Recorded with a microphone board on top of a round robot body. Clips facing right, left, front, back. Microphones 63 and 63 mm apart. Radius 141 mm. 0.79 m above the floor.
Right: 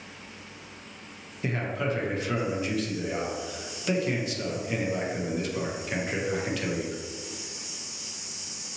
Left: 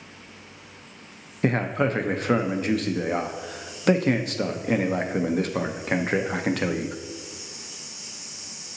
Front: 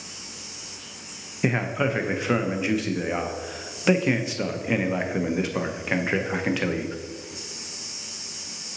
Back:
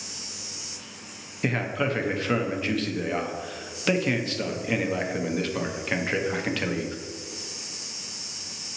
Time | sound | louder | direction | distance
1.4 | a man speaking | left 6 dB, front 2 dB | 75° left | 0.6 m